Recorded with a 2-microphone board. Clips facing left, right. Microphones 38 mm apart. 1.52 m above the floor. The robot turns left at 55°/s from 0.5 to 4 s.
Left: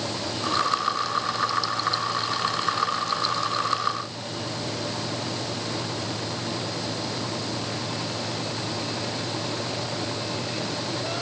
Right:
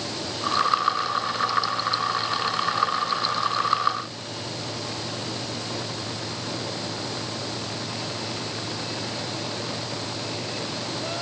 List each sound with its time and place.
Only background noise.